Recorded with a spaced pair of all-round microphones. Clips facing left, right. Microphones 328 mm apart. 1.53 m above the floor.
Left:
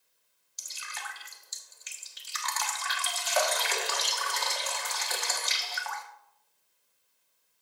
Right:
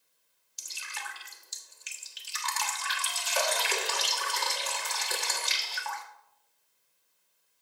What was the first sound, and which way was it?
Dripping, 40° right (ahead or behind).